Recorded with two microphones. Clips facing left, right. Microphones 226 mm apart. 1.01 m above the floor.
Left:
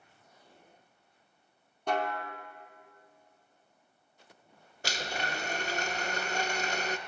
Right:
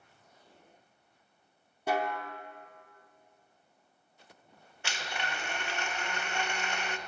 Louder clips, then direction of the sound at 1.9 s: Even; 5° right (ahead or behind).